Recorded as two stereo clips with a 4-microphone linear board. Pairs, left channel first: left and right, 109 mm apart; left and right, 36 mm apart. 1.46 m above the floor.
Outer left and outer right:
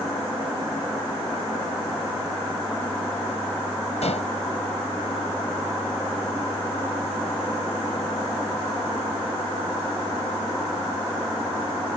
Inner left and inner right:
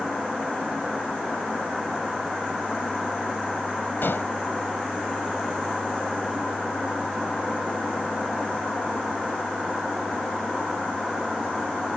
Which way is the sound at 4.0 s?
85° left.